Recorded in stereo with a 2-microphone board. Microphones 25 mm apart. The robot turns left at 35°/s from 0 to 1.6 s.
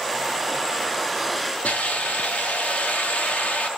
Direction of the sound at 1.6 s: 80° left.